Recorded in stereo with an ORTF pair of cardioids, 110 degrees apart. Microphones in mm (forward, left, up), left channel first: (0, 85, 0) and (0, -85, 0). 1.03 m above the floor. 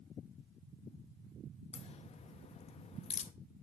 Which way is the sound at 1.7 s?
40° left.